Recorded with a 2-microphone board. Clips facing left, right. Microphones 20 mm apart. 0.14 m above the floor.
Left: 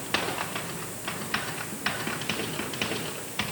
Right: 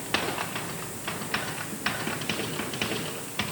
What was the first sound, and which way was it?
Only background noise.